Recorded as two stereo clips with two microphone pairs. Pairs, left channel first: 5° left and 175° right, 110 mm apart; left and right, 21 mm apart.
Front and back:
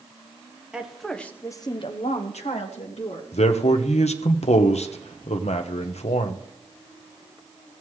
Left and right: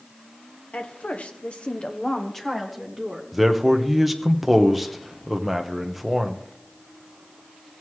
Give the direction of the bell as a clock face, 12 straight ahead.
I don't hear a bell.